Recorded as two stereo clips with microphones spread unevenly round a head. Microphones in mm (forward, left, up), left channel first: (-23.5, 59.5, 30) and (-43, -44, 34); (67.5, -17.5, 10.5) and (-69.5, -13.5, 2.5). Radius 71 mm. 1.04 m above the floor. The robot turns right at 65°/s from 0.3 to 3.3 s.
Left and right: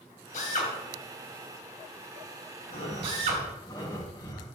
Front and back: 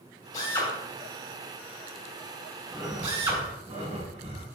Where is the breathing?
90° left, 2 m; by 4.5 s 130° left, 2 m.